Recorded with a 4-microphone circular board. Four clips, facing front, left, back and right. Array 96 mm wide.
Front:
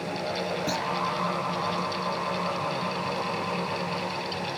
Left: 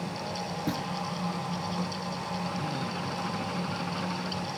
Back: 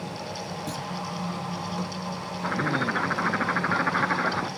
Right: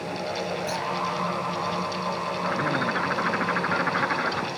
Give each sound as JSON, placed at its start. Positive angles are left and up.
{"t": 0.7, "sound": "a clunk", "azimuth_deg": 75}
{"t": 2.4, "sound": "a bird", "azimuth_deg": -140}